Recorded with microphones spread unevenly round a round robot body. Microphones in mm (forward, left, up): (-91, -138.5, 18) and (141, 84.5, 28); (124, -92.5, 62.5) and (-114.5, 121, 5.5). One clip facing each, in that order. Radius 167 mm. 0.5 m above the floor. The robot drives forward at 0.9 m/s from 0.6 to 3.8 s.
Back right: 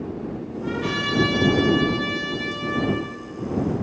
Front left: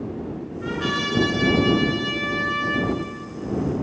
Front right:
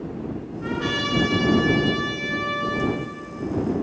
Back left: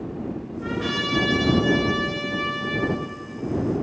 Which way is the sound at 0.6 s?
40° left.